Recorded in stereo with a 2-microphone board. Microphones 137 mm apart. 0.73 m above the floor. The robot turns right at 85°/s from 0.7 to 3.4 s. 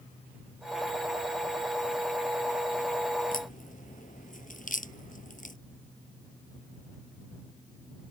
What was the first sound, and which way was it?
A crack, 80° left.